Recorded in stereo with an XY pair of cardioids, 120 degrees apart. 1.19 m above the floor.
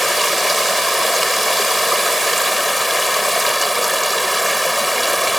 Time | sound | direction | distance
0.0 | running water | straight ahead | ?